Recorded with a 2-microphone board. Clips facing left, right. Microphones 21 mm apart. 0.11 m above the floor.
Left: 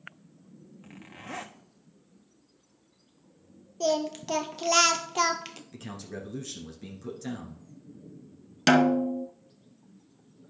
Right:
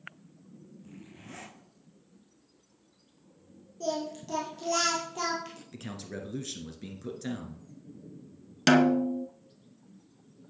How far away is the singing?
About 1.2 m.